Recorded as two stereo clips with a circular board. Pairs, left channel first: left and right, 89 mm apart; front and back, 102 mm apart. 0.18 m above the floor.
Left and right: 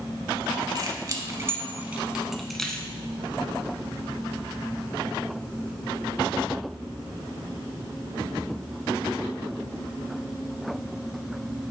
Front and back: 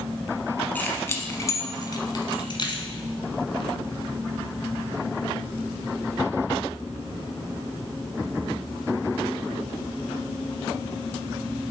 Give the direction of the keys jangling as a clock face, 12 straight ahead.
2 o'clock.